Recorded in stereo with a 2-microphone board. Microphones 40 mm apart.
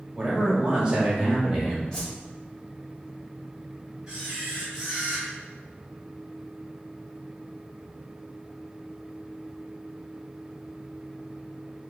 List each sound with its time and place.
0.1 s a man speaking: 20° right (ahead or behind), 1.2 m
1.9 s a whoosh: 15° left (ahead or behind), 1.9 m
4.1 s a camera shutter: 15° right (ahead or behind), 1.9 m